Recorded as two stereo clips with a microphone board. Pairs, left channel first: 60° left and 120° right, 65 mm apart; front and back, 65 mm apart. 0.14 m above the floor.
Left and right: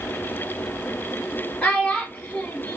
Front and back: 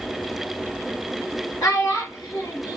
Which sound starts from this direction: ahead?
A child speaking, at 1.6 s.